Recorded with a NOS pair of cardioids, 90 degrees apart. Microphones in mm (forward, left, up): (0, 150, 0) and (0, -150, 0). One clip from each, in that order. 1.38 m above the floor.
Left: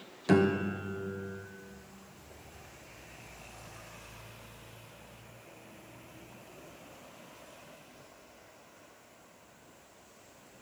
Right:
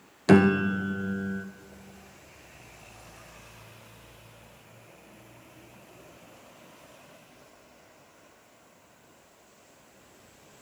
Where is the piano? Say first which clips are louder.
Right 6 dB; 35° right, 0.6 m.